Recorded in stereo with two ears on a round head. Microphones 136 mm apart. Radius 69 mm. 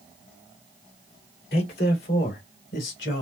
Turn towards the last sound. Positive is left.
turn(degrees=75)  # may be behind; listen again after turning